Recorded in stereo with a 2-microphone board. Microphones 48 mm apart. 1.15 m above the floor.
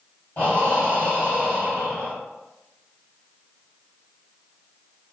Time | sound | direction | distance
0.4 | breathing | 30° left (ahead or behind) | 1.9 m